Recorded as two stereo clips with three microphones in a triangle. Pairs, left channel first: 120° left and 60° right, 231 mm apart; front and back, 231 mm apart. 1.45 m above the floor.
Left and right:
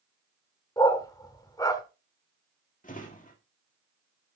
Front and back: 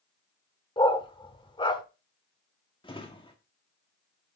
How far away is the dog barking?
About 1.3 m.